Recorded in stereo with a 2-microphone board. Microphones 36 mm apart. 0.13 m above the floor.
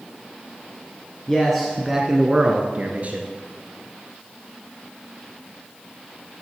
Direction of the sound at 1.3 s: 10° left (ahead or behind).